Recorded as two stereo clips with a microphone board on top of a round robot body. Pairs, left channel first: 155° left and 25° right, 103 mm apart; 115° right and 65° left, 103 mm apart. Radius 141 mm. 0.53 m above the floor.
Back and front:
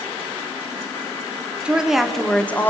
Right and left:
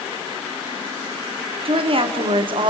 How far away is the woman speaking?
About 2.5 m.